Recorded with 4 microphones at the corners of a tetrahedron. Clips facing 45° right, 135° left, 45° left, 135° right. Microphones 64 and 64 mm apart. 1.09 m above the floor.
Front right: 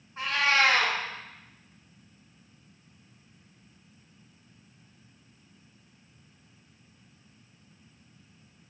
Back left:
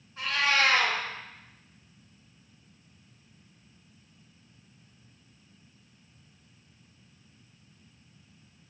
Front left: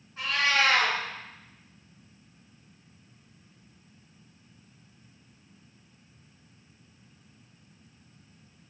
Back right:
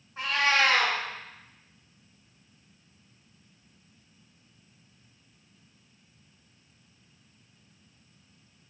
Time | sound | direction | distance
0.2 | a cat meowing | 95° right | 0.6 m